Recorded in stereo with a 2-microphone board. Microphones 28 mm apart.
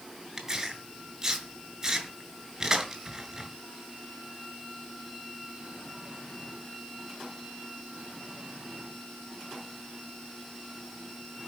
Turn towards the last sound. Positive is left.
turn(degrees=-30)  # may be behind; listen again after turning